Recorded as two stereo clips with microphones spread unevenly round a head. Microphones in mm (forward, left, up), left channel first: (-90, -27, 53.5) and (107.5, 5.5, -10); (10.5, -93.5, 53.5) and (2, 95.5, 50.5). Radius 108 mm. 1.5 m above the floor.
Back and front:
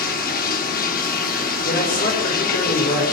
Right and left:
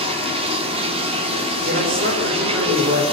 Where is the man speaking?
140° left, 6.5 m.